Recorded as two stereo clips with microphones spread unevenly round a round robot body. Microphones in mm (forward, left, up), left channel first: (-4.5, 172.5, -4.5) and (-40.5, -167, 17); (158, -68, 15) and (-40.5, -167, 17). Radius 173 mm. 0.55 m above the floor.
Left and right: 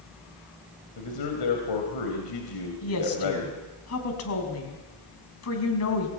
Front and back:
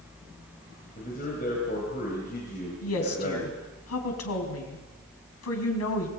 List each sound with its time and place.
1.0 s a man speaking: 85° left, 3.5 m
2.8 s a woman speaking: 35° left, 4.5 m